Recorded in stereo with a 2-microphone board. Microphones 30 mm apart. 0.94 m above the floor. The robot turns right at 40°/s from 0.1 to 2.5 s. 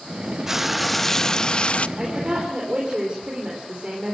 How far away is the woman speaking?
About 3.5 m.